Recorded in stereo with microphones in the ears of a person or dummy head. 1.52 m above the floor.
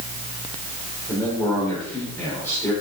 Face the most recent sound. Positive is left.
turn(degrees=10)  # may be behind; listen again after turning